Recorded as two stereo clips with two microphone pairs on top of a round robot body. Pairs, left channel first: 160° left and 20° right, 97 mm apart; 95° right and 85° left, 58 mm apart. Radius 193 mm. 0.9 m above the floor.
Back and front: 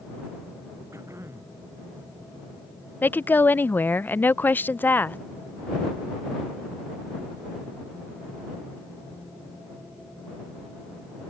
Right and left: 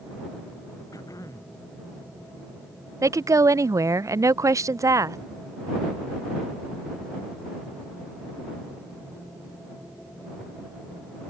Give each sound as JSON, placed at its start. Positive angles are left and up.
{"t": 0.9, "sound": "throat clearing", "azimuth_deg": -80}
{"t": 3.0, "sound": "a woman speaking", "azimuth_deg": 90}